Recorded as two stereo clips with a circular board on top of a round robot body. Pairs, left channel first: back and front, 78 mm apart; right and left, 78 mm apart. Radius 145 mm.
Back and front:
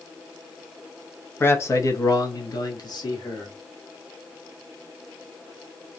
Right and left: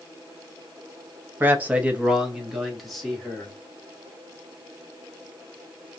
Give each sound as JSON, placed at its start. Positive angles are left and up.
{"t": 1.4, "sound": "a man speaking", "azimuth_deg": 140, "distance_m": 1.0}